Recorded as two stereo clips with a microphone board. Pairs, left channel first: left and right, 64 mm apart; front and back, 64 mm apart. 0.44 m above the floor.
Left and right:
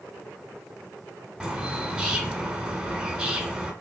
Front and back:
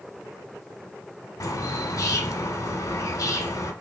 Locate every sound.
1.4 s a bird: 15° right, 0.7 m